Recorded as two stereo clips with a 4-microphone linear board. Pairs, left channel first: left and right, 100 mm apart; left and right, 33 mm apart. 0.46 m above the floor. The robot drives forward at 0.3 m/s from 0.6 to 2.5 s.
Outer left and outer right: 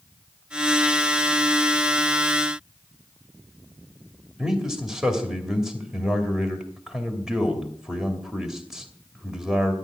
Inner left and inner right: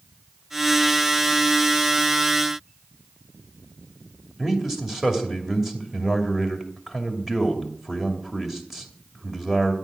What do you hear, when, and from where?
4.4 s a man speaking: 5° right (ahead or behind), 2.5 m